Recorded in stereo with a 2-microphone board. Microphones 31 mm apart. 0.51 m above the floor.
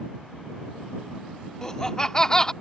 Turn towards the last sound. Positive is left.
turn(degrees=25)  # may be behind; listen again after turning